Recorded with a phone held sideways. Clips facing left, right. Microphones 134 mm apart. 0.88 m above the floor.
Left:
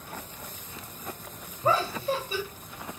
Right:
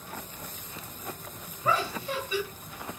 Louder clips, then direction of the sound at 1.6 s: Left 3 dB; 35° left (ahead or behind).